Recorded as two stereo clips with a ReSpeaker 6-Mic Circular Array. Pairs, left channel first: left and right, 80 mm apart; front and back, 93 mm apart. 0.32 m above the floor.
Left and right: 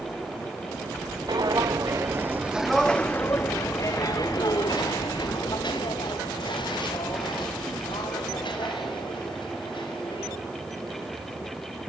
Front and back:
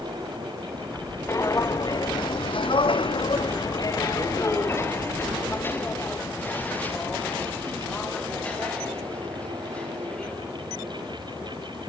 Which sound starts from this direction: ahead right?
Footsteps, at 1.3 s.